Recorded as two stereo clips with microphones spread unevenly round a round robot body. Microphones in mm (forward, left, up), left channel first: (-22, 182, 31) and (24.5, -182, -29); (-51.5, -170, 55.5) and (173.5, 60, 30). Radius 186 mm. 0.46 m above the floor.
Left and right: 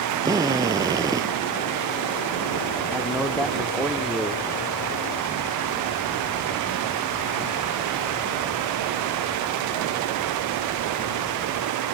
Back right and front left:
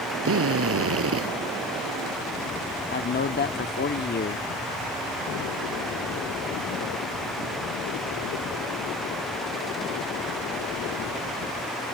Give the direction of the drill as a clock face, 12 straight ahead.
12 o'clock.